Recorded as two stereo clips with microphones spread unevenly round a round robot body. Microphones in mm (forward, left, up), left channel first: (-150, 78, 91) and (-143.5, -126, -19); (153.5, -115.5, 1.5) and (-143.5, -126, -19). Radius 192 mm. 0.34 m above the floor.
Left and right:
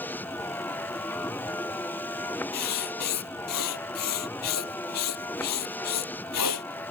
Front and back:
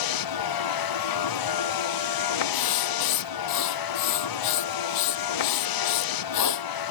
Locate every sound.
0.0 s a vehicle: 5° left
2.5 s writing: 50° left